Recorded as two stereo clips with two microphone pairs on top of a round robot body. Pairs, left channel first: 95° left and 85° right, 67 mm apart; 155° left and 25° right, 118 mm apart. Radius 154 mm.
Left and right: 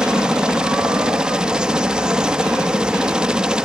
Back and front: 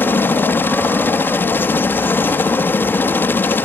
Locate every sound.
0.0 s a helicopter: 145° right